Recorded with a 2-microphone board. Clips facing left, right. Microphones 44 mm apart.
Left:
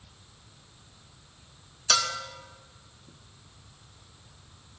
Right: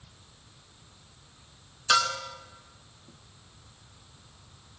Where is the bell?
20° right (ahead or behind), 2 m.